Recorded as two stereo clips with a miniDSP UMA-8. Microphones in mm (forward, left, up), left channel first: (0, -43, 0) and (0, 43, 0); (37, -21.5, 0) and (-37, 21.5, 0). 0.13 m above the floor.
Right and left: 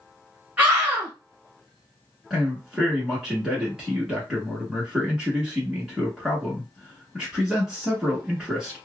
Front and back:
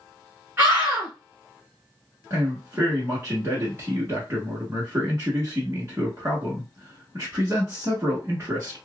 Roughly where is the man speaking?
Behind.